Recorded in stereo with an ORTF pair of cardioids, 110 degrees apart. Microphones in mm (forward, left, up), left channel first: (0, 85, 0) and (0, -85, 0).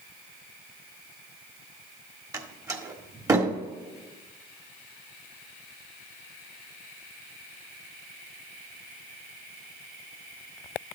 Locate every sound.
2.3 s a door slam: 20° right, 1.6 m